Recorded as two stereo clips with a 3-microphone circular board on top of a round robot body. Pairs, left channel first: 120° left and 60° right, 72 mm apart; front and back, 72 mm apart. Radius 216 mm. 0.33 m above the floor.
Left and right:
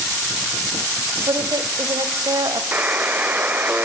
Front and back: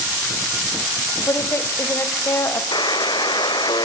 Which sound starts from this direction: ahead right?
A woman speaking, at 1.3 s.